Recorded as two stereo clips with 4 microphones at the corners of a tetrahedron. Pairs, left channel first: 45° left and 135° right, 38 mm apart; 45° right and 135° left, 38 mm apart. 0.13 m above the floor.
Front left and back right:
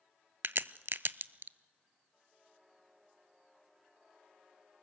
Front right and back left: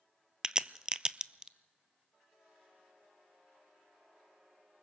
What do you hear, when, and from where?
0.4 s a crack: 155° right, 0.5 m